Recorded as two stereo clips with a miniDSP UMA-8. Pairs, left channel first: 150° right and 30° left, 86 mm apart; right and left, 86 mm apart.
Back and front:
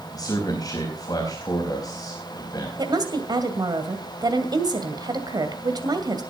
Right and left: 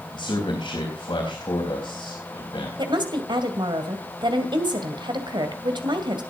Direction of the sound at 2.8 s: 65° left.